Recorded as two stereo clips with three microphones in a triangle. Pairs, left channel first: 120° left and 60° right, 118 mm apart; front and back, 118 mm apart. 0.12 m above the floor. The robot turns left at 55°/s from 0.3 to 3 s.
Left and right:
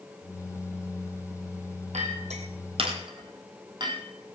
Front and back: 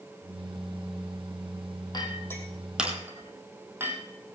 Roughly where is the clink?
Ahead right.